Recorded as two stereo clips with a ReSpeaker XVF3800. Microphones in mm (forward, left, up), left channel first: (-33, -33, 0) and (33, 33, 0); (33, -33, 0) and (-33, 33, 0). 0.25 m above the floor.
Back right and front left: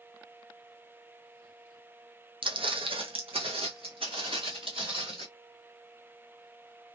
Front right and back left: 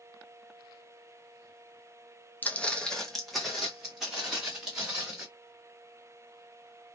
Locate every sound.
2.4 s footsteps: 25° left, 0.6 m; by 5.3 s 55° left, 2.0 m